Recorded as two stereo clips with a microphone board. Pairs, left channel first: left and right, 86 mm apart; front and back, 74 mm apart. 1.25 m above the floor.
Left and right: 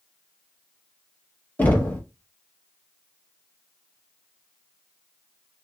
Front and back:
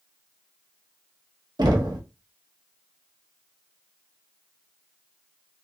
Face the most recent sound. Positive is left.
turn(degrees=160)